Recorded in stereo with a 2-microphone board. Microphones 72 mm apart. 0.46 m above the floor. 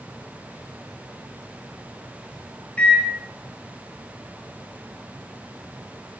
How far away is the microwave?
About 0.7 m.